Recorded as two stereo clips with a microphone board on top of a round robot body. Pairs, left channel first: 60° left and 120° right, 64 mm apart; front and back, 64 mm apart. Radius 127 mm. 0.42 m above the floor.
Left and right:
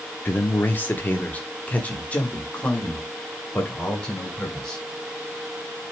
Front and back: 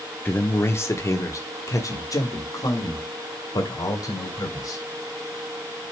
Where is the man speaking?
30° left, 1.3 m; by 4.8 s 15° right, 3.5 m.